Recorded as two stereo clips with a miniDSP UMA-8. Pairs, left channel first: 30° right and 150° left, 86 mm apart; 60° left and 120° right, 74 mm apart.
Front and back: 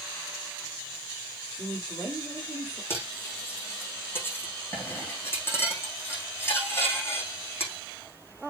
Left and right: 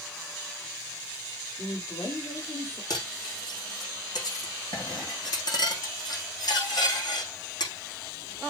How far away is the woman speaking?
About 5 m.